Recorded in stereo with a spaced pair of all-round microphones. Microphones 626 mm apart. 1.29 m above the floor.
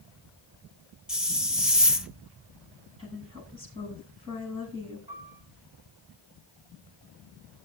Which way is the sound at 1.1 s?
Centre (ahead or behind).